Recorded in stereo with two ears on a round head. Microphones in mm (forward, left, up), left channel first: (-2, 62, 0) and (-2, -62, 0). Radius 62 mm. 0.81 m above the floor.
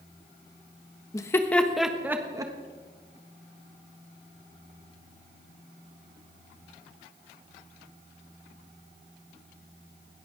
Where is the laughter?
25° left (ahead or behind), 1.1 m; by 2.5 s 30° right (ahead or behind), 1.2 m.